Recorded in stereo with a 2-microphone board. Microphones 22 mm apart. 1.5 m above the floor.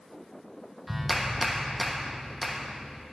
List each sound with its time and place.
0.9 s a clap: 5° right (ahead or behind), 1.1 m